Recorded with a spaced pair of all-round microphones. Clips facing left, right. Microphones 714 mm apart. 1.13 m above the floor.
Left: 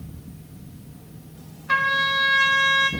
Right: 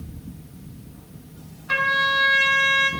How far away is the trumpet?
About 2 m.